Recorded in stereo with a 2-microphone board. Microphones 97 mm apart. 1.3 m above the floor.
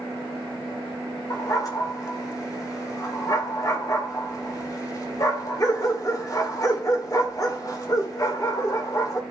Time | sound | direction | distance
1.3 | a dog barking | 40° left (ahead or behind) | 2.0 m